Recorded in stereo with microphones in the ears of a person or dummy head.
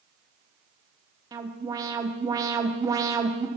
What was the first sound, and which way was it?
An alarm, 15° right (ahead or behind).